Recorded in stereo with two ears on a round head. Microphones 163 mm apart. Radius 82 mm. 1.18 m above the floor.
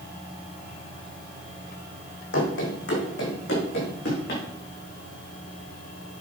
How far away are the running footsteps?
About 3.5 m.